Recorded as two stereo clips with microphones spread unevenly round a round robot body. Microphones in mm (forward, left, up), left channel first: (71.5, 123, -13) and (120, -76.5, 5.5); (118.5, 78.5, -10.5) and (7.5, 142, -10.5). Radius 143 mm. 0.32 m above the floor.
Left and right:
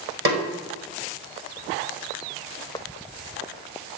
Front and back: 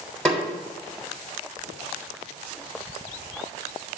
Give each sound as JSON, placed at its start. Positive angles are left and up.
{"t": 0.2, "sound": "a snare drum", "azimuth_deg": -115, "distance_m": 1.4}